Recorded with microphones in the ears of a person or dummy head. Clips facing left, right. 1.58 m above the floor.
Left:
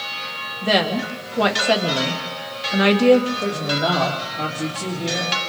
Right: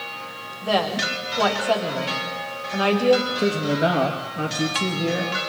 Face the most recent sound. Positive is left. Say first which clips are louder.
# right 2 dB
turn(degrees=-35)  # may be behind; listen again after turning